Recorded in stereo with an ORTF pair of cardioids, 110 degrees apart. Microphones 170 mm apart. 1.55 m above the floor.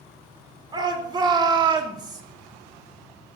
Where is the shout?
25° right, 5 m.